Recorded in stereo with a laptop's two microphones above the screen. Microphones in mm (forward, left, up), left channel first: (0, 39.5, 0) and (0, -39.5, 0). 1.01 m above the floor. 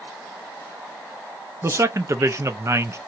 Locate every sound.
1.6 s a man speaking: 35° right (ahead or behind), 0.5 m